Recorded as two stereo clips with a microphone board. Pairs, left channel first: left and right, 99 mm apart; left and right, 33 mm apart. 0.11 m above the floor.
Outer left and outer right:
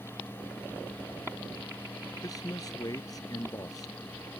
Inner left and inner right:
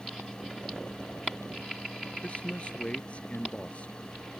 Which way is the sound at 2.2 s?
40° left (ahead or behind).